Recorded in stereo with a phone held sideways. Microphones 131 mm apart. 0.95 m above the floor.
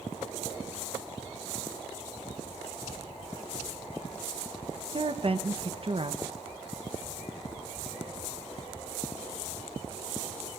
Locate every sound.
4.9 s a woman speaking: 45° right (ahead or behind), 0.7 m